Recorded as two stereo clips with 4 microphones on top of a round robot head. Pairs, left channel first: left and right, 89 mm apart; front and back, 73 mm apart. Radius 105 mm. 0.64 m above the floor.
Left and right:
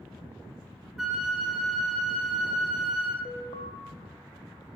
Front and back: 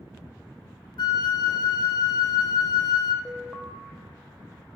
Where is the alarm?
95° left, 1.4 m.